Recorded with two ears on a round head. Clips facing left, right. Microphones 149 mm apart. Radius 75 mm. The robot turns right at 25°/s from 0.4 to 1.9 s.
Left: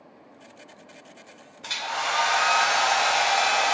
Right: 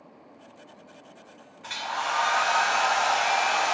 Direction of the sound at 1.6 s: 50° left (ahead or behind).